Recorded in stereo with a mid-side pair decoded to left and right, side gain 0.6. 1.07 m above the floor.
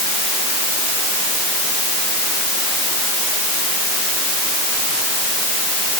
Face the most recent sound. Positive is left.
No sound to turn to.